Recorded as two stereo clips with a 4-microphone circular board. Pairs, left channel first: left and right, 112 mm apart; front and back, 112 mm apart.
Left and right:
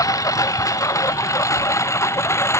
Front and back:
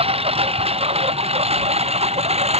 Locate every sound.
0.0 s a lawn mower: 150° left; by 2.6 s 155° left